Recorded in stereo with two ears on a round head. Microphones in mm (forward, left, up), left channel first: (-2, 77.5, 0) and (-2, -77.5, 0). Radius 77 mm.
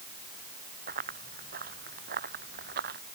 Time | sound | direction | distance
0.9 | running footsteps | 50° right (ahead or behind) | ?